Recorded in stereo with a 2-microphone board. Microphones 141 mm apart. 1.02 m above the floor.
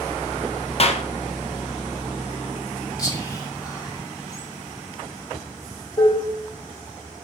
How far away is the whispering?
About 1.1 m.